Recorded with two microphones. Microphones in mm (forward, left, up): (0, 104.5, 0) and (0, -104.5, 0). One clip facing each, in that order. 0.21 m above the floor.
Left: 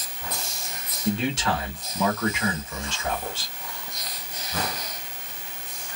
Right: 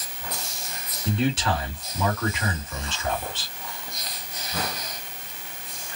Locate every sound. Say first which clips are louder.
1.1 s a man speaking: right 1 dB; 5° right (ahead or behind), 1.7 m